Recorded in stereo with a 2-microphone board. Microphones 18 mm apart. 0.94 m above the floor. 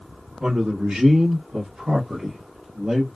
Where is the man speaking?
50° right (ahead or behind), 1.3 m; by 3.1 s 30° right (ahead or behind), 1.2 m.